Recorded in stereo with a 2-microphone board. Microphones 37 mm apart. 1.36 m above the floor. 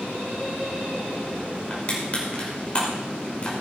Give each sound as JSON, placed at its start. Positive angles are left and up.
{"t": 1.7, "sound": "crushing", "side_deg": 30, "distance_m": 5.0}